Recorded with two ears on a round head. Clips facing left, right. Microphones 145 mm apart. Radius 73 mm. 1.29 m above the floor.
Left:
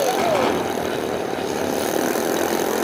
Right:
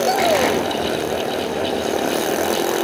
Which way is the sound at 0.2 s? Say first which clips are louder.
Right 2 dB; 10° right (ahead or behind).